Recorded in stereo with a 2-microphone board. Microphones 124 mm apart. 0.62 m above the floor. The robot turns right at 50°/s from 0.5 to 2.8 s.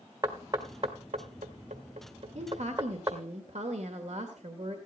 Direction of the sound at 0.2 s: 30° right (ahead or behind).